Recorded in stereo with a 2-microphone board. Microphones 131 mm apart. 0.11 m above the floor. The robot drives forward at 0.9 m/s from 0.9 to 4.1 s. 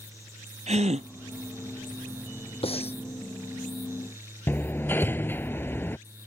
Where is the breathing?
45° left (ahead or behind); by 3.0 s 50° left (ahead or behind).